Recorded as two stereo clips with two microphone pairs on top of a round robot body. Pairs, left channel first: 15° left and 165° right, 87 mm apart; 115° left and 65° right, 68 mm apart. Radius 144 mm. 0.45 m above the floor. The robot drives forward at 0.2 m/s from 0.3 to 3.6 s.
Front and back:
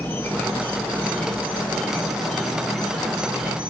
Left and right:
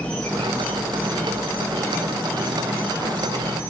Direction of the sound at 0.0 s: 30° left.